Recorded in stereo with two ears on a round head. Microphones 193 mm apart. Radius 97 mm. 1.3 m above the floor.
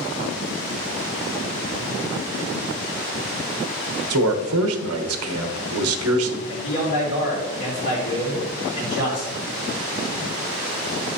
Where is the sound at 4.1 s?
75° right (ahead or behind), 1.0 m.